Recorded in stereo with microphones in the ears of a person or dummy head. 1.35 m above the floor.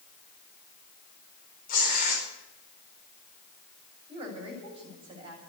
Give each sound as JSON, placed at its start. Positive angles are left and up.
{"t": 1.7, "sound": "tearing paper", "side_deg": 50, "distance_m": 5.0}
{"t": 4.1, "sound": "a woman speaking", "side_deg": -20, "distance_m": 7.0}